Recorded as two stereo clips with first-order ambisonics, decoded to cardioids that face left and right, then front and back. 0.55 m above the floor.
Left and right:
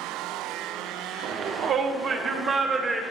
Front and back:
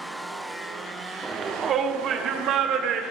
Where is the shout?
115° right, 1.1 m; by 3.0 s 160° right, 1.6 m.